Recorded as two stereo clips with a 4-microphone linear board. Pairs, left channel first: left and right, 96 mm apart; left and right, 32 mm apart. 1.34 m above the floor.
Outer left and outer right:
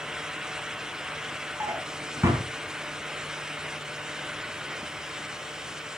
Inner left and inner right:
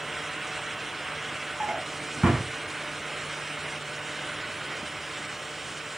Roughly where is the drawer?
Right.